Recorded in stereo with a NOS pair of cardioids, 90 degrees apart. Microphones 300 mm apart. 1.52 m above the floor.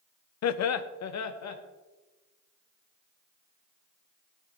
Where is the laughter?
60° left, 1.0 m; by 1.6 s 65° left, 3 m.